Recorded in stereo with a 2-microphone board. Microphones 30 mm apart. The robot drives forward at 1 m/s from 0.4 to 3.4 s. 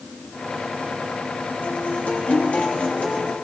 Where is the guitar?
65° left (ahead or behind), 2.5 m; by 3.4 s 40° left (ahead or behind), 3.5 m.